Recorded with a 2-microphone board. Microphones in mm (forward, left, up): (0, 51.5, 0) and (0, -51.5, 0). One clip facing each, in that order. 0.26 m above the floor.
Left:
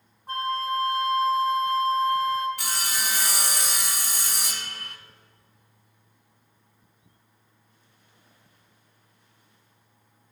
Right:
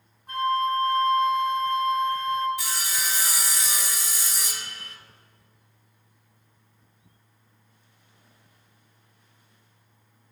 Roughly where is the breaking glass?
I don't hear breaking glass.